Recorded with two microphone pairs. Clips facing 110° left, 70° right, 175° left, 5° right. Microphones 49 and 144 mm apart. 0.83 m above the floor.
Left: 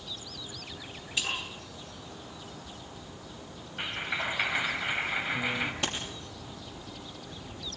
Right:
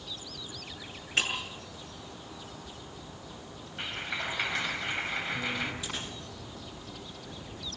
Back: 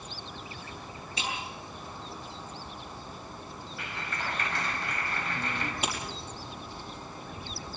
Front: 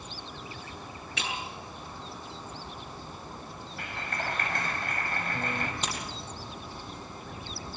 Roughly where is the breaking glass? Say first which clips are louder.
Right 3 dB, back 1 dB; ahead right.